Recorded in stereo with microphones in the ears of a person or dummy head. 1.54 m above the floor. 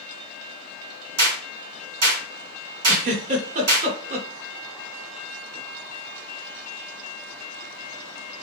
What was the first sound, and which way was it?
A clap, 70° right (ahead or behind).